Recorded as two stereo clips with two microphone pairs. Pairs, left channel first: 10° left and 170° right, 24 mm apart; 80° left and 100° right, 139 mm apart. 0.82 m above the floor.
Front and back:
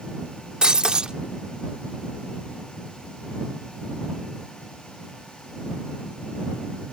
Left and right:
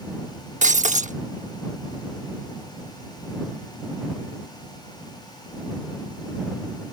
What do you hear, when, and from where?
0.6 s breaking glass: 120° right